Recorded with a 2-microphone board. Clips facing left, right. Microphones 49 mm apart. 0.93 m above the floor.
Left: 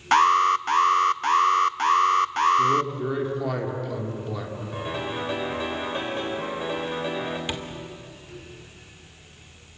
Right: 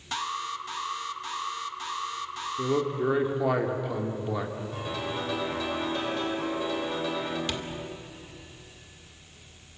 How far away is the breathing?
I don't hear breathing.